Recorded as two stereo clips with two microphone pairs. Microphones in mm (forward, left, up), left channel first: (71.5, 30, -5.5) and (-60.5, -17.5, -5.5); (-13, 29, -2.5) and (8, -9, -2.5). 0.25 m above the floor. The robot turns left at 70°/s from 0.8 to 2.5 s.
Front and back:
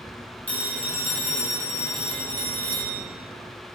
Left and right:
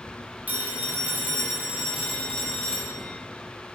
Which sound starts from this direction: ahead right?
A phone ringing, at 0.5 s.